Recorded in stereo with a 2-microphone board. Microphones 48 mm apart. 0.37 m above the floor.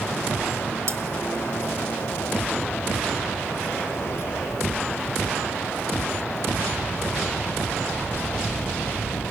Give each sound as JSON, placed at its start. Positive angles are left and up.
{"t": 0.9, "sound": "cutlery clinking", "side_deg": -70, "distance_m": 1.9}